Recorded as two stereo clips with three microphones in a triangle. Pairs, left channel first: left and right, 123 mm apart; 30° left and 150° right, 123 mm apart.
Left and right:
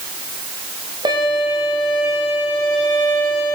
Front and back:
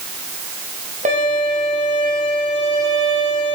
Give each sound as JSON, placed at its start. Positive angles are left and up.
{"t": 1.1, "sound": "a violin", "azimuth_deg": -145, "distance_m": 8.0}